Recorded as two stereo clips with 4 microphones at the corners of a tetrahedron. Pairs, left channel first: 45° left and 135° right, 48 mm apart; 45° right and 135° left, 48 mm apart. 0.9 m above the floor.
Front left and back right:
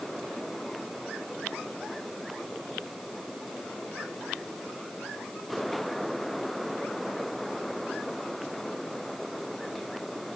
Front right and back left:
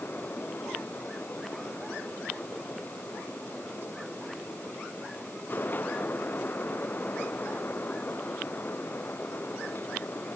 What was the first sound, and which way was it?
Only background noise.